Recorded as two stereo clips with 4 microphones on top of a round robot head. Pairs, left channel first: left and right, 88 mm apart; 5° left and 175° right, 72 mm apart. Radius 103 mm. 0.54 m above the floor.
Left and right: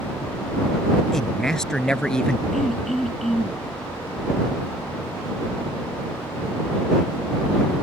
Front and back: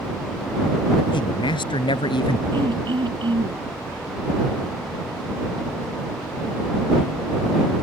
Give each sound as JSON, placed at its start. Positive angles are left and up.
{"t": 1.1, "sound": "a man speaking", "azimuth_deg": 5}
{"t": 2.5, "sound": "throat clearing", "azimuth_deg": 175}